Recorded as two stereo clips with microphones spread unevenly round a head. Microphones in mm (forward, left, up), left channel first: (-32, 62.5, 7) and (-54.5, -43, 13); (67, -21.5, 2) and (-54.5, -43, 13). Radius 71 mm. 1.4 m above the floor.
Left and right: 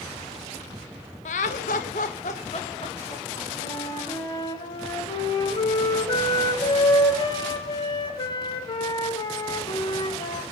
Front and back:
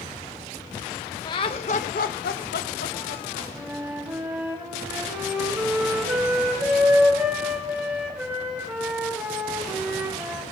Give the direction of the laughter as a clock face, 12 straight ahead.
10 o'clock.